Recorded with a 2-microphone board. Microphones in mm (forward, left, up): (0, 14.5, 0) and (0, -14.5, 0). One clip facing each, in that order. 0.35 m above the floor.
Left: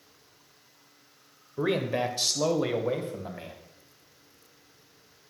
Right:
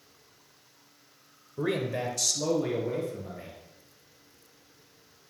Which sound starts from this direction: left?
A man speaking, at 1.6 s.